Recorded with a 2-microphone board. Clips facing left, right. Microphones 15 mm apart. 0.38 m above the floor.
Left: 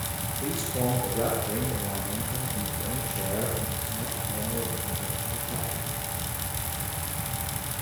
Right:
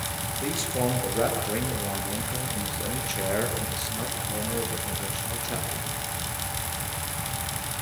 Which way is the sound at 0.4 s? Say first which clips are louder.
Right 2 dB; 30° right (ahead or behind).